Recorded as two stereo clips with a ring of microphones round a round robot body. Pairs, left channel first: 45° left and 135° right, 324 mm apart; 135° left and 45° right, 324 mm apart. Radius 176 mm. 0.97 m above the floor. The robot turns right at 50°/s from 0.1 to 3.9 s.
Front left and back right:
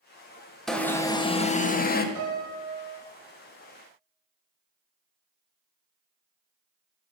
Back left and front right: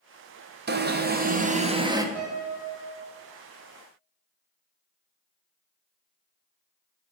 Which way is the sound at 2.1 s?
95° right.